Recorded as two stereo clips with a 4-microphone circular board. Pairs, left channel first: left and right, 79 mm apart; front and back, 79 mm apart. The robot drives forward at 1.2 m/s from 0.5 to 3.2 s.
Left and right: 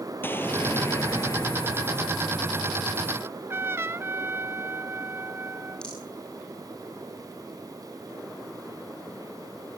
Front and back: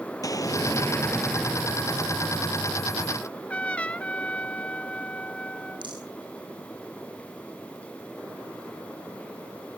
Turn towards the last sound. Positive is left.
turn(degrees=170)